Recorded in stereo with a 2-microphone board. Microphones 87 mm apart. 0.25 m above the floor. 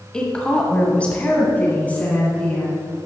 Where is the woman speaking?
10° left (ahead or behind), 1.2 m; by 2.8 s 20° left (ahead or behind), 2.5 m.